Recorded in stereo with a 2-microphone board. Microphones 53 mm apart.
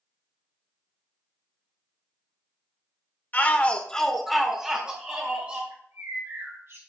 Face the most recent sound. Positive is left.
turn(degrees=-60)  # may be behind; listen again after turning